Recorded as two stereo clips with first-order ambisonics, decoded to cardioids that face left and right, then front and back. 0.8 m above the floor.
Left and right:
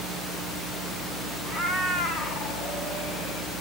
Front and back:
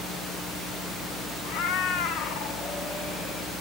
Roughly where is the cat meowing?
Ahead.